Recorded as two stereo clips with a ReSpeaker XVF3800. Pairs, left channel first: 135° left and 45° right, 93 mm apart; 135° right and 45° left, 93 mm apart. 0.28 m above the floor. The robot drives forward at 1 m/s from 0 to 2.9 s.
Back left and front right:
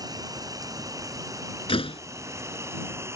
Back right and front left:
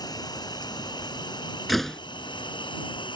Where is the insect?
95° right; by 3.2 s 105° right.